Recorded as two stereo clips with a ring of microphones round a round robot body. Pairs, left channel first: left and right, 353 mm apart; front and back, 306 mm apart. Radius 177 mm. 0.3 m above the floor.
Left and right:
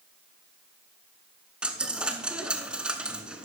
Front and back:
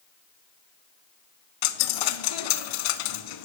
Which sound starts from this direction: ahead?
A dropped coin, at 1.6 s.